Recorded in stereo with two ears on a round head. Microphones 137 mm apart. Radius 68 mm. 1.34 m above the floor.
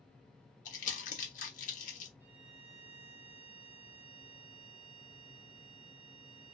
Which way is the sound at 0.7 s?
55° left (ahead or behind).